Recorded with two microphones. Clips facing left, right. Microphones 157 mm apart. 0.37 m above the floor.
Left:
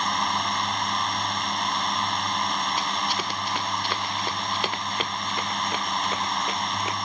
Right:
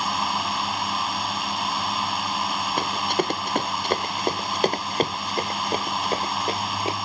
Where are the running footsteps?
50° right (ahead or behind); by 7.0 s 30° right (ahead or behind).